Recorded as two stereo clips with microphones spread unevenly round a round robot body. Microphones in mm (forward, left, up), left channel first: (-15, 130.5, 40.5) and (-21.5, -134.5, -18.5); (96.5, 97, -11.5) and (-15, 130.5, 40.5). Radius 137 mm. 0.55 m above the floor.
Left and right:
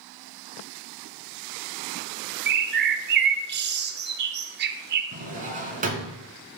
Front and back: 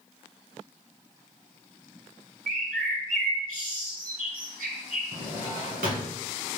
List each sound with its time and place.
2.5 s a bird: 140° right, 0.6 m
5.1 s a drawer: 155° right, 1.8 m